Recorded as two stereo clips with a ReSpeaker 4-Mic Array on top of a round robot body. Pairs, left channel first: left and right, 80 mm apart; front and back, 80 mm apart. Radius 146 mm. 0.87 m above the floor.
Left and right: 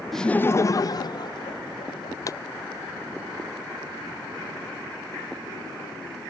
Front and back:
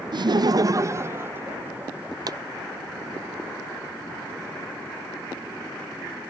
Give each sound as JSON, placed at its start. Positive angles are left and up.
{"t": 0.1, "sound": "laughter", "azimuth_deg": 180}
{"t": 2.3, "sound": "a pop", "azimuth_deg": 140}